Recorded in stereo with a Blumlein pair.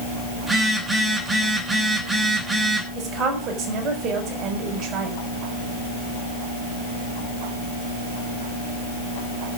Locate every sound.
0.4 s a phone buzzing: 10° right, 3 m
3.0 s a woman speaking: 30° right, 4.5 m